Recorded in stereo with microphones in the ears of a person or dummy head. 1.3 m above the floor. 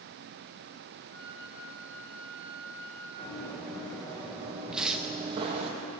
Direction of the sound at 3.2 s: 5° left (ahead or behind).